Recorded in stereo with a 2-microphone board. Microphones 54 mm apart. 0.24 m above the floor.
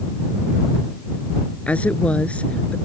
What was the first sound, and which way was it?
A woman speaking, 25° left (ahead or behind).